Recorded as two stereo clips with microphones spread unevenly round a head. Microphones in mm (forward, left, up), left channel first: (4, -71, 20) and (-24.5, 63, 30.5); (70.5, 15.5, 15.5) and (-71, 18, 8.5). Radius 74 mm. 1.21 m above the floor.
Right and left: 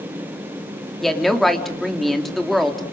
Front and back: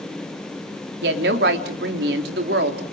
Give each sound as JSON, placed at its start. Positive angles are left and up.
{"t": 1.0, "sound": "a woman speaking", "azimuth_deg": -165, "distance_m": 3.0}